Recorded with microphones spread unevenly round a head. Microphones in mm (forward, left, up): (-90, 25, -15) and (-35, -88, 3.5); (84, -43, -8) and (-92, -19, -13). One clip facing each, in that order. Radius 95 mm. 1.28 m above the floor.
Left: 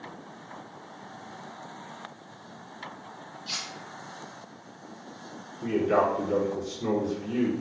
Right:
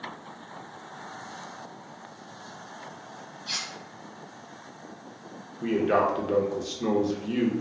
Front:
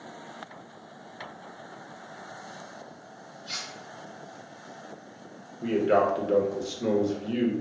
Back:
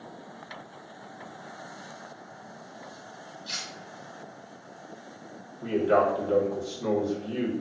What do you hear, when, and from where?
3.5 s cutlery clinking: 165° right, 1.1 m
5.6 s a man speaking: 75° right, 0.8 m